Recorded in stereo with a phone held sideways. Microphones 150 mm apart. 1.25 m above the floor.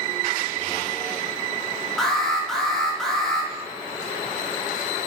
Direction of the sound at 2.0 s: Centre (ahead or behind).